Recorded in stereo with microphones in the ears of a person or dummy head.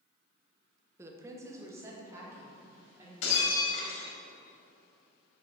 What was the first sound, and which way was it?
A woman speaking, 15° right (ahead or behind).